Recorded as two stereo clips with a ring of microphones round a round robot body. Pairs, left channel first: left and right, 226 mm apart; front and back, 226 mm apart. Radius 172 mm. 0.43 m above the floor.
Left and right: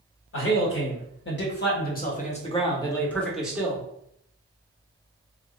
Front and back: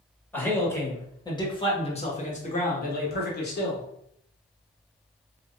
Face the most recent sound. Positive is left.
turn(degrees=-15)